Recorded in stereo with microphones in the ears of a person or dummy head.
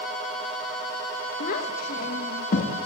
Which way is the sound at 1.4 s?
50° left (ahead or behind).